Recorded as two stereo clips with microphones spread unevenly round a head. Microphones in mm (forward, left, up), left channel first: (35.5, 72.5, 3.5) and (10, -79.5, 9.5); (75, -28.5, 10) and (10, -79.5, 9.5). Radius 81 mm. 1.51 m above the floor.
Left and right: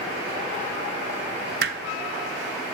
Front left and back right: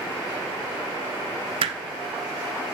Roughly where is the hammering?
Behind right.